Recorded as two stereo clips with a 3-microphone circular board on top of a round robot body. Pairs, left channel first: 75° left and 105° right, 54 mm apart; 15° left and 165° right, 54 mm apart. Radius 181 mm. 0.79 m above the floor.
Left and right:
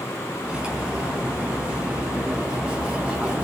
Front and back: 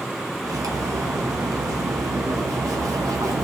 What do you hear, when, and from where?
0.4 s cutlery clinking: straight behind, 1.4 m